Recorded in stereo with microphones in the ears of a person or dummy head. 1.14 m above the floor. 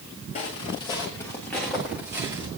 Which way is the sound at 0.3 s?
30° left (ahead or behind).